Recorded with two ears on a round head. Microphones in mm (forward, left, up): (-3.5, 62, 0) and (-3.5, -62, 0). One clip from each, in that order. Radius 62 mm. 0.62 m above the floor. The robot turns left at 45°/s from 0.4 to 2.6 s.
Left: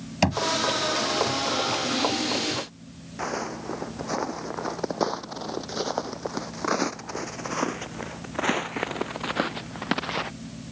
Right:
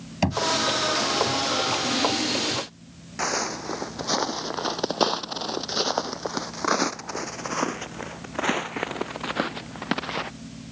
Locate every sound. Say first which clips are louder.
0.2 s knocking: left 1 dB; 25° left (ahead or behind); by 0.5 s 30° left (ahead or behind)
3.2 s footsteps: right 4 dB; 50° right (ahead or behind); by 10.3 s 5° left (ahead or behind)